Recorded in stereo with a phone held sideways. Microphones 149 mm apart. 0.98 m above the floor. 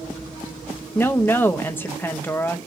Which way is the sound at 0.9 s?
15° left (ahead or behind).